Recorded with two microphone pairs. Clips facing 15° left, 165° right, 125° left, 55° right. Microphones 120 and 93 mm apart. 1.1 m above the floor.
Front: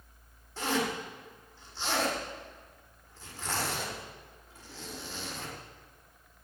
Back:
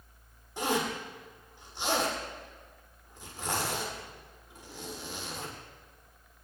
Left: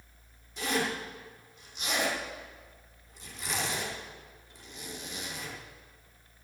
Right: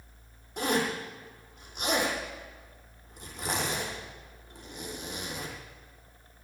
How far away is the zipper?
About 7.5 m.